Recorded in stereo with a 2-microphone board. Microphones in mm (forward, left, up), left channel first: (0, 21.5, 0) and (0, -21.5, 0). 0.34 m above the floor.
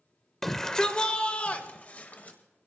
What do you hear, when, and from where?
0.4 s a shout: 5° left (ahead or behind), 1.0 m; by 2.4 s 40° left (ahead or behind), 1.5 m